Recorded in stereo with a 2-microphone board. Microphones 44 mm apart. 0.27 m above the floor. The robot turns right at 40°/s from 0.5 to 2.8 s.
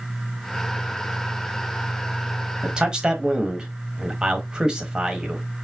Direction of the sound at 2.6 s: 25° right (ahead or behind).